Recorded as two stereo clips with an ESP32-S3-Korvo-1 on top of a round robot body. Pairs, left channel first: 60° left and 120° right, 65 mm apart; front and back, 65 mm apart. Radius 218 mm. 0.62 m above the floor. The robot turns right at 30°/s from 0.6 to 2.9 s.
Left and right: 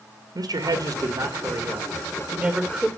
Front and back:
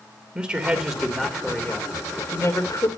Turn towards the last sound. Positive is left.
turn(degrees=-40)